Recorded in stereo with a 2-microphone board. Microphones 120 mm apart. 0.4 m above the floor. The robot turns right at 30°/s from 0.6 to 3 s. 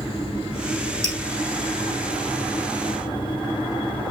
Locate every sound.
1.0 s dripping: 40° left (ahead or behind), 2 m; by 1.2 s 35° left (ahead or behind), 2 m